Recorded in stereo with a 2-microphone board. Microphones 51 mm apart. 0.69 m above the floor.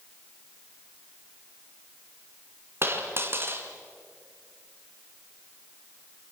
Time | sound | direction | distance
2.8 | a dropped coin | 55° right (ahead or behind) | 3 m